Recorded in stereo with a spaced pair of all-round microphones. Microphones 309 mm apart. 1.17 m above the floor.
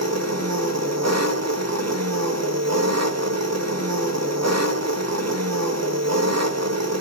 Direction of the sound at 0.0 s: 50° right (ahead or behind).